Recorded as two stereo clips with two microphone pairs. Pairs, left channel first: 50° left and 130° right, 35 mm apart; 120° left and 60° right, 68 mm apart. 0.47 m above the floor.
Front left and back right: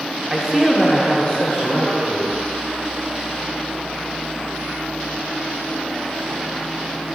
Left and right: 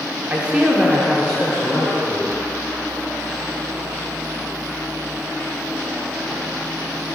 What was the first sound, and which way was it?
A man speaking, 80° right.